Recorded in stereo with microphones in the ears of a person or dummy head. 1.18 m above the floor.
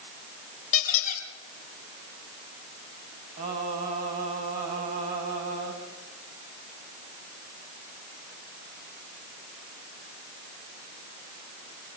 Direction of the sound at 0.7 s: 40° left (ahead or behind).